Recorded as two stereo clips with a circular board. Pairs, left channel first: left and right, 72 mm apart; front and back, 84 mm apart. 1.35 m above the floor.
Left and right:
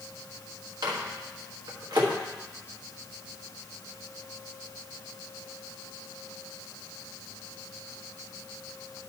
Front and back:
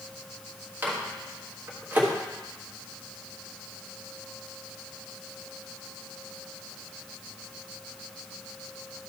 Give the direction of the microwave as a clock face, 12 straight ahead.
4 o'clock.